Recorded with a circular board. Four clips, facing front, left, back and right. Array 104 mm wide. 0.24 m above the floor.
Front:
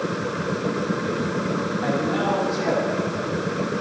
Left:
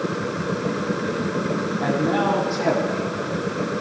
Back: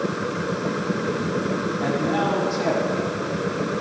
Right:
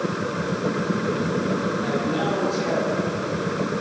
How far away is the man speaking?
About 9 m.